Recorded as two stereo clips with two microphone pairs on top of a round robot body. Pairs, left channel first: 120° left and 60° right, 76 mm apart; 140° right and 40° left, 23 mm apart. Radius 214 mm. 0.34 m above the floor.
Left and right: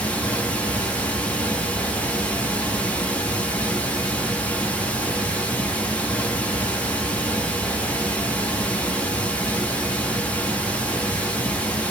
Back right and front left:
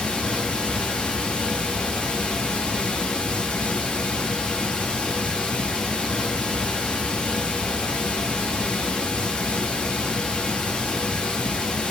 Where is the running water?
170° right, 1.0 m.